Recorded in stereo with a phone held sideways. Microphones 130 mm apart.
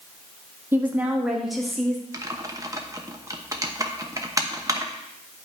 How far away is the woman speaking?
About 1.6 m.